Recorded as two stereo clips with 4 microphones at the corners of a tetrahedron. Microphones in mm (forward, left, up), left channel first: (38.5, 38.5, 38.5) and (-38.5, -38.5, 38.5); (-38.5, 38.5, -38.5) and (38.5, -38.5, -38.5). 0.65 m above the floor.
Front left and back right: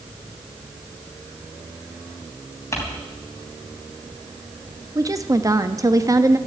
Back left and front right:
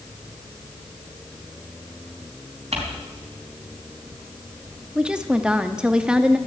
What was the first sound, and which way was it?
Crumpling, 20° right.